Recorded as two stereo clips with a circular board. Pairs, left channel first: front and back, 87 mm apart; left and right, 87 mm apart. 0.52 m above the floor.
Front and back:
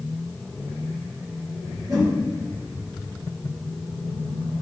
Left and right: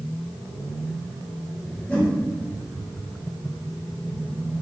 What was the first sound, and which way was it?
A whoosh, 165° left.